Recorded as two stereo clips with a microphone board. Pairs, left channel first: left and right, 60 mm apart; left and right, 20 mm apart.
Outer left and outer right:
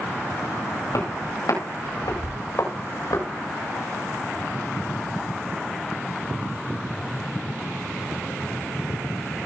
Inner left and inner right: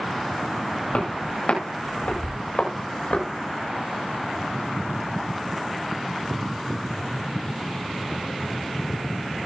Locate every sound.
0.9 s footsteps: 80° left, 9.5 m; by 3.3 s 75° left (ahead or behind), 8 m